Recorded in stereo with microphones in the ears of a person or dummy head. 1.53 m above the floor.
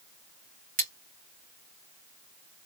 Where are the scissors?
45° right (ahead or behind), 2 m.